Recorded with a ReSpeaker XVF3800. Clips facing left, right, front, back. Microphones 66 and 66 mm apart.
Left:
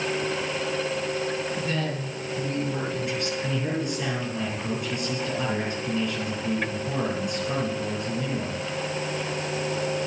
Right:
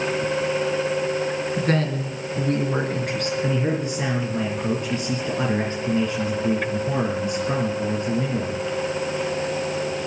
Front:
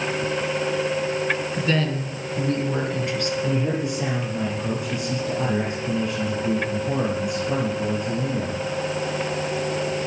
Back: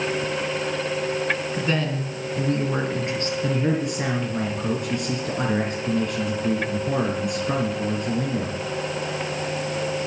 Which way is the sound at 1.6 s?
110° right.